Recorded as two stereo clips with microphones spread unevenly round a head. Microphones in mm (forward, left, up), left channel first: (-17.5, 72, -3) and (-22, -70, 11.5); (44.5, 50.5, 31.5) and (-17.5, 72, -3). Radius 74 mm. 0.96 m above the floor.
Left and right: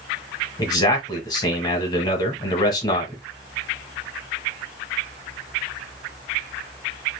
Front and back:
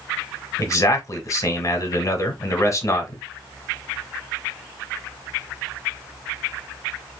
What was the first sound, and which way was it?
A man speaking, 35° left.